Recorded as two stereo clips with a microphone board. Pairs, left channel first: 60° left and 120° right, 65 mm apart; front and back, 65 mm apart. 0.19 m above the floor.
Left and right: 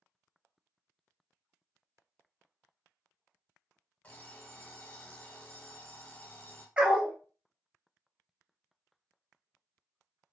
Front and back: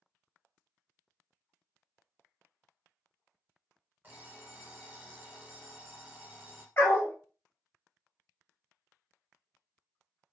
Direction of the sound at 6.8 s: 50° right.